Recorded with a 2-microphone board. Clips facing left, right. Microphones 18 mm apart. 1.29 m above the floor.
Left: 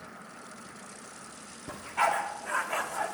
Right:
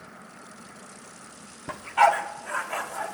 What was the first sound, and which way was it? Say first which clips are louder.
A dog barking: right 7 dB; 45° right (ahead or behind).